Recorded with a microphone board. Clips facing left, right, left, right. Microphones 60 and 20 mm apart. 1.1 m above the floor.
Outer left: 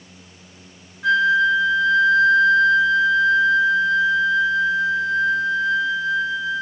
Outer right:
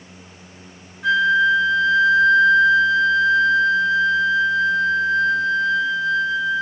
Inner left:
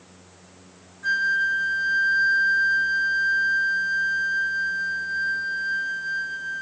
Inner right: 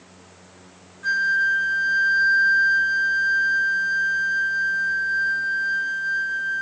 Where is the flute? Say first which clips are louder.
Even, inner right 2 dB; centre (ahead or behind), 2 m.